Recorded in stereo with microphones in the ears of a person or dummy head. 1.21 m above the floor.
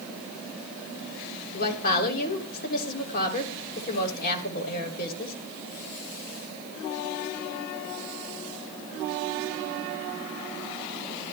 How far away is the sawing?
No sawing in this recording.